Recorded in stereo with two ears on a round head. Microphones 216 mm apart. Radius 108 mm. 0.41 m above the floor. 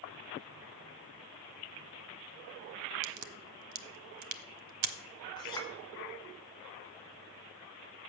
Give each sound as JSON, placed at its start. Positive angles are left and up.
{"t": 3.0, "sound": "a crack", "side_deg": -85, "distance_m": 0.7}
{"t": 5.4, "sound": "a clink", "side_deg": 20, "distance_m": 2.0}